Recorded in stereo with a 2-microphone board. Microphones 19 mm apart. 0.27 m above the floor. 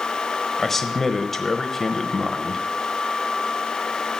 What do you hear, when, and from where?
0.6 s a man speaking: 15° left (ahead or behind), 0.9 m